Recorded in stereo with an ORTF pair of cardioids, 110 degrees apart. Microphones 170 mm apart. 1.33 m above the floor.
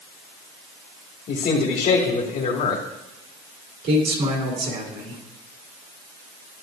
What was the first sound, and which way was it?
A man speaking, 60° left.